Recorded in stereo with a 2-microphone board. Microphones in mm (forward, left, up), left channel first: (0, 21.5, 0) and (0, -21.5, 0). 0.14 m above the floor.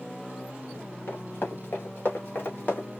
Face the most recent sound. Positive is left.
turn(degrees=45)  # may be behind; listen again after turning